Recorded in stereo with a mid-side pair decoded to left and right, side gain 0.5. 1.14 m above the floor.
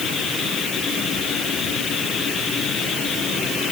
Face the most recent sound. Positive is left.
No sound to turn to.